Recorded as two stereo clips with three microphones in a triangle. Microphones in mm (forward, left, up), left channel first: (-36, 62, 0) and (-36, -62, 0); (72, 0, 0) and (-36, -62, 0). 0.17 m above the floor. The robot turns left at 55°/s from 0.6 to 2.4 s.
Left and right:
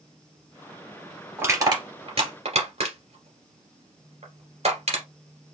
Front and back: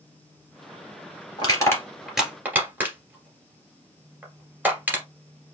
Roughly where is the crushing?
Ahead.